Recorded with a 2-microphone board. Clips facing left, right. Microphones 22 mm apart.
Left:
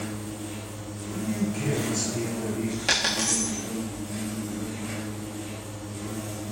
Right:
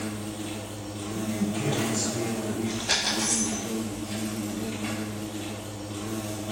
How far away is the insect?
About 3 m.